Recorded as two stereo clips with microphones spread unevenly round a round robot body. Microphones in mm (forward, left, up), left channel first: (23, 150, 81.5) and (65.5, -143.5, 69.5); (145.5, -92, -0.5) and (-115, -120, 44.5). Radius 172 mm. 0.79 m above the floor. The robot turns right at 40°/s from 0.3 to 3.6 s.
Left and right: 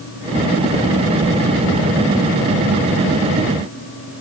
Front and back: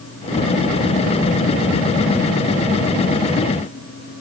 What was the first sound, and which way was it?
Only background noise.